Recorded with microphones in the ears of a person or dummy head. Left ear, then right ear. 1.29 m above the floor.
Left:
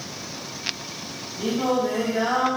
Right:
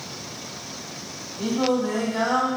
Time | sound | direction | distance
1.4 | singing | 25° right (ahead or behind) | 1.2 m